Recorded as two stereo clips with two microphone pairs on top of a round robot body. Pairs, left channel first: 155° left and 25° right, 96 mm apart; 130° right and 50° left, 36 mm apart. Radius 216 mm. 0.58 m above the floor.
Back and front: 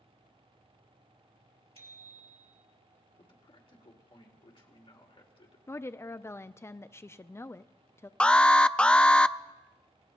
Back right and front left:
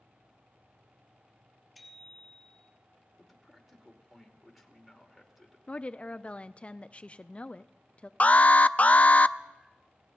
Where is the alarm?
125° right, 0.5 m.